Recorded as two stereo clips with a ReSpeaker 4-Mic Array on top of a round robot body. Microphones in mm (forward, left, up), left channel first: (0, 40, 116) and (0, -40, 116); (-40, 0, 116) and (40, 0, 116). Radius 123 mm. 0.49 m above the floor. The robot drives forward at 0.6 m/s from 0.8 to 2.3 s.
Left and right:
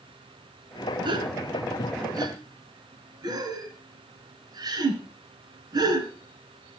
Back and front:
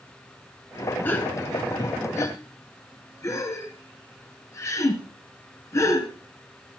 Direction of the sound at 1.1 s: 115° right.